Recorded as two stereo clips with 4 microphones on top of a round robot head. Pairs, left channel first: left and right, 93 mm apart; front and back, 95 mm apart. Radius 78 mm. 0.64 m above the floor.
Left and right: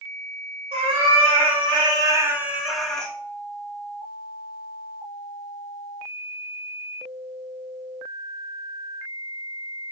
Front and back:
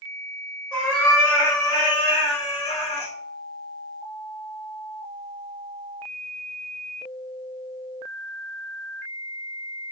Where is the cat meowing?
85° right, 1.4 m; by 3.1 s 10° left, 1.1 m.